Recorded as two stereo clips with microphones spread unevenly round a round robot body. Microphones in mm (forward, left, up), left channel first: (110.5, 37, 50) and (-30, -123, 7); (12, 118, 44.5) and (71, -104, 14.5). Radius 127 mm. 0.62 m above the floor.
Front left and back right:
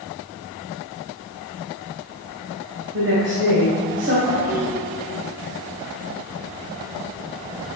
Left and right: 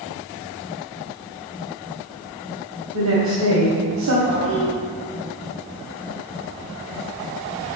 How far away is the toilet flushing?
About 4 m.